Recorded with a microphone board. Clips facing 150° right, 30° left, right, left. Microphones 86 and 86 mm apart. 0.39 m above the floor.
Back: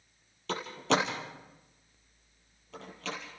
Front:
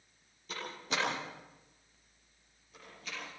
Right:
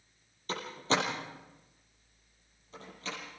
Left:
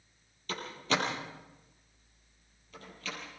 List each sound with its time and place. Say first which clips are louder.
0.5 s a door slam: back 10 dB, right 2 dB; 150° right, 6 m